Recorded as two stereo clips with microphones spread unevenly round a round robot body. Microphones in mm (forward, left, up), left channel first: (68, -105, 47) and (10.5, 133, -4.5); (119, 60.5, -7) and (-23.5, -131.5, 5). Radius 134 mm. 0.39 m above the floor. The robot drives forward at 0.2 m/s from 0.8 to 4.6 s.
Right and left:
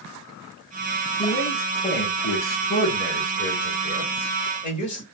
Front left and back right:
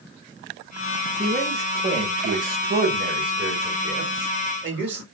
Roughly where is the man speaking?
Right.